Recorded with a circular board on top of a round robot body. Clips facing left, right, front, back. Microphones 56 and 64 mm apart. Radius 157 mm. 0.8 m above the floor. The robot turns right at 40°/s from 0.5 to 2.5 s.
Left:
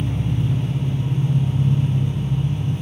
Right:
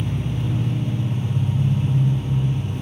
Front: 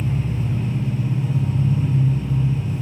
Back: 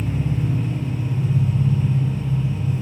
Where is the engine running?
140° right, 1.9 m; by 2.8 s 60° right, 1.9 m.